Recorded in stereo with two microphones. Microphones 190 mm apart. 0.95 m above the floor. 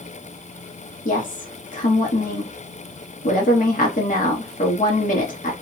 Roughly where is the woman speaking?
Left.